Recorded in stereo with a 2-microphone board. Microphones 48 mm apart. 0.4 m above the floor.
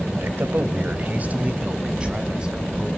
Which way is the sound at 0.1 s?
55° right (ahead or behind).